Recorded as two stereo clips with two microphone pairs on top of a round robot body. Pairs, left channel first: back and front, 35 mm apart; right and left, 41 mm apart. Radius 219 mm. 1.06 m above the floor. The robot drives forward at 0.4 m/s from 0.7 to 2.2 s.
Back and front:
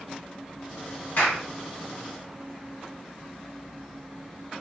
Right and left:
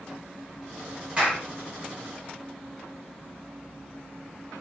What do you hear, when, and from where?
1.2 s a clap: 150° left, 1.0 m; by 1.4 s 155° left, 1.1 m